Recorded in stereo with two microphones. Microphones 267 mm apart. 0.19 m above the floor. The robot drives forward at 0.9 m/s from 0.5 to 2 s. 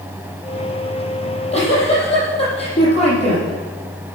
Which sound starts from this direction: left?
A giggle, at 1.2 s.